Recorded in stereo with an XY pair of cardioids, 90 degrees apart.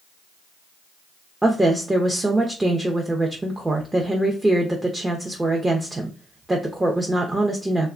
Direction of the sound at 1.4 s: 15° right.